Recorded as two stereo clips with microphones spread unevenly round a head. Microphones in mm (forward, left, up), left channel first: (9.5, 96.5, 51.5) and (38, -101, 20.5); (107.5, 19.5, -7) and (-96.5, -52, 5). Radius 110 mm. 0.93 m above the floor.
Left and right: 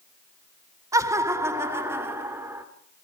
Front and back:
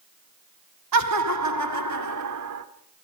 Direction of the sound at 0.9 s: 155° right.